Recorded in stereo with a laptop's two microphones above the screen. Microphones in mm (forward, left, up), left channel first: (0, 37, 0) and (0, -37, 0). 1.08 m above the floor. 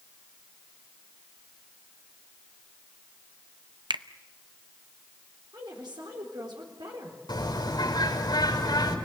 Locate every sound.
3.9 s a finger snap: 85° right, 0.6 m
5.5 s a woman speaking: 80° right, 3.5 m
7.3 s a bird: 75° left (ahead or behind), 4 m